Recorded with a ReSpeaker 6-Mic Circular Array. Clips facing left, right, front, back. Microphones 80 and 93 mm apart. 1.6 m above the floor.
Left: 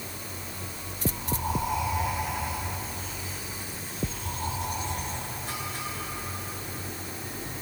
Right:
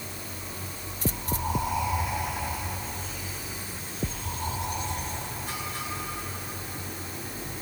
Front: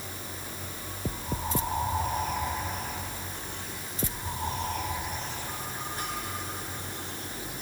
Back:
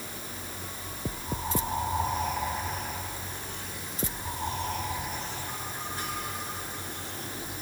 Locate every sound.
Only background noise.